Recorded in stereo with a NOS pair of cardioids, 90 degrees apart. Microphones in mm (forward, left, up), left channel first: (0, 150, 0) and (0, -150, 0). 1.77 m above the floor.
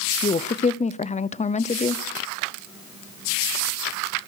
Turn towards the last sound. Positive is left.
turn(degrees=25)